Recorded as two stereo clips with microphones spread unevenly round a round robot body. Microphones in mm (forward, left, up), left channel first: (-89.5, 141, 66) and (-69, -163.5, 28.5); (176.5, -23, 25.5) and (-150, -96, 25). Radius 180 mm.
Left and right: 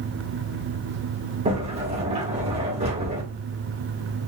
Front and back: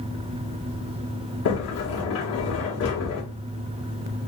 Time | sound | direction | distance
1.4 | a sliding door | 25° right | 1.6 m